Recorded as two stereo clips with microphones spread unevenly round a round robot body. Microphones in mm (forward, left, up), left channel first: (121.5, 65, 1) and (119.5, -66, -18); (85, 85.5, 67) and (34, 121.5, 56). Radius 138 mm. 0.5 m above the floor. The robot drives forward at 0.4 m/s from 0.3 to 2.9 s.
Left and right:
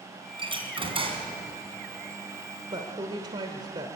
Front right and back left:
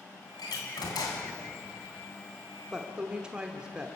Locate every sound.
0.4 s a door slam: 40° right, 3 m; by 1.3 s 45° right, 3 m
2.7 s a woman speaking: 140° right, 1.2 m; by 3.9 s 145° right, 1.3 m